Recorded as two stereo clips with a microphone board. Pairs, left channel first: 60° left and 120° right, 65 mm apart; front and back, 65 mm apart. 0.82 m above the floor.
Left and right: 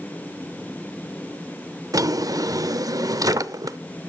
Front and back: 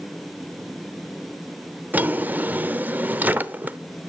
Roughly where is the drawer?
Behind right.